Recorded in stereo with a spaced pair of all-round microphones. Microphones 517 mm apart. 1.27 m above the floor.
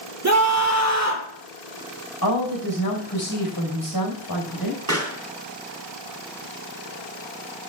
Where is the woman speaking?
45° left (ahead or behind), 5 m.